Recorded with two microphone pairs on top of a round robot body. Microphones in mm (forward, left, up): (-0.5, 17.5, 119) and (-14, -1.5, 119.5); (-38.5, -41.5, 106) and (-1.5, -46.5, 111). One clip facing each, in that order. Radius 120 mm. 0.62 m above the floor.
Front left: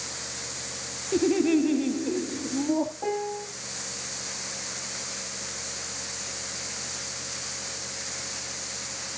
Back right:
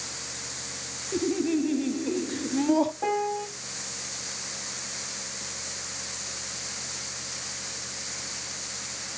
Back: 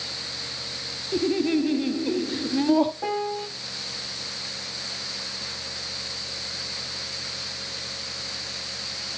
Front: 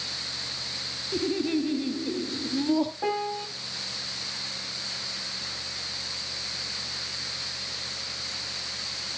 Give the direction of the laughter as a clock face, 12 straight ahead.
9 o'clock.